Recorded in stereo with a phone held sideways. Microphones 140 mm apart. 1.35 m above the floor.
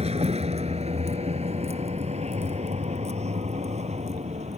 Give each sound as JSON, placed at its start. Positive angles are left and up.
{"t": 0.0, "sound": "a vehicle", "side_deg": -45}